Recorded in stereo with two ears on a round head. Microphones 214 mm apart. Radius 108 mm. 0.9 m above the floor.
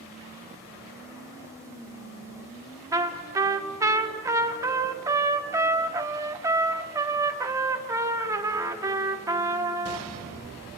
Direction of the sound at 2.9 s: 15° right (ahead or behind).